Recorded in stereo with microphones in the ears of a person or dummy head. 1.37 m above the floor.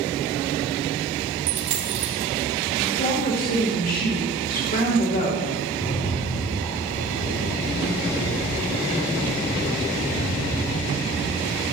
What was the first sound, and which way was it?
A dropped coin, 40° right (ahead or behind).